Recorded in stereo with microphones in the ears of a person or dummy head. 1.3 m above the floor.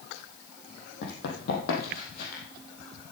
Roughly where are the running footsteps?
Left.